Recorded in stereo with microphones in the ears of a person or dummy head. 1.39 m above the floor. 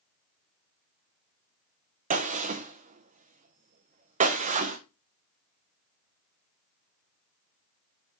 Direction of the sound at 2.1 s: 35° right (ahead or behind).